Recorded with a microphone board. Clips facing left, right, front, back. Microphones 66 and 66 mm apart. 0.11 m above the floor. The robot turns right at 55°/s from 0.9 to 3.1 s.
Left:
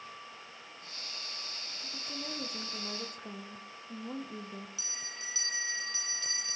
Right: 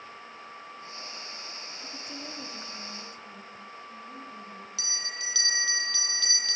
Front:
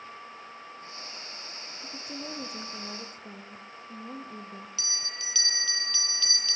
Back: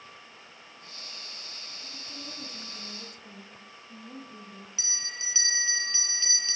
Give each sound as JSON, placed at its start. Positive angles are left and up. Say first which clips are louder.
{"t": 1.8, "sound": "a woman speaking", "louder": "even, front 7 dB", "azimuth_deg": -20, "distance_m": 7.0}
{"t": 4.8, "sound": "a bell", "louder": "right 6 dB, even", "azimuth_deg": -115, "distance_m": 1.4}